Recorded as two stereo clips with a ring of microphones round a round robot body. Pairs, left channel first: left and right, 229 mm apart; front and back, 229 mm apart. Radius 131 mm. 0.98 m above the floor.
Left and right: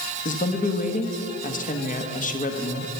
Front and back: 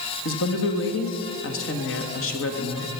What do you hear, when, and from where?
0.2 s a woman speaking: 35° left, 1.5 m